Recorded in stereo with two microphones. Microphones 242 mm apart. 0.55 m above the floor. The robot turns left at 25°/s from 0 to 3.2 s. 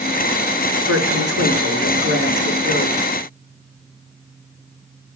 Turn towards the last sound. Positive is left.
turn(degrees=-145)